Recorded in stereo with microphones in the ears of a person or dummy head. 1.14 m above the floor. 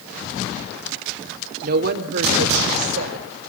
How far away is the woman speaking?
About 2.5 m.